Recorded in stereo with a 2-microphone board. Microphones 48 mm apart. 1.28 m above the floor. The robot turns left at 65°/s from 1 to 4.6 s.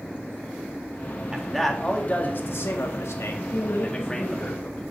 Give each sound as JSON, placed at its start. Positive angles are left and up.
{"t": 1.3, "sound": "a man speaking", "azimuth_deg": -165, "distance_m": 1.8}
{"t": 3.5, "sound": "a woman speaking", "azimuth_deg": 105, "distance_m": 1.6}